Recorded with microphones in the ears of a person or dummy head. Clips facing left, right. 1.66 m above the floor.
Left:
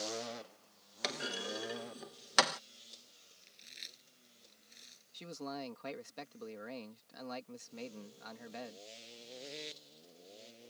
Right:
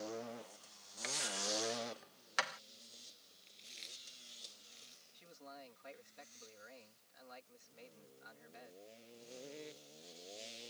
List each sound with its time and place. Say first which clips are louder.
1.0 s a clunk: left 3 dB; 60° left (ahead or behind)
3.4 s chewing: right 2 dB; 25° left (ahead or behind)
5.1 s a man speaking: left 13 dB; 75° left (ahead or behind)